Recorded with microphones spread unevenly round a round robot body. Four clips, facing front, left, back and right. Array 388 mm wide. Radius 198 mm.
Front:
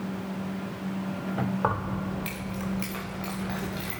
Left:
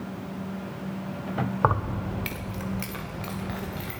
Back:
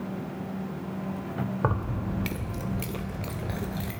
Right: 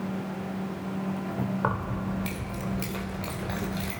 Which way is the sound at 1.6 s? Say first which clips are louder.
Left 4 dB, front 1 dB; 135° left.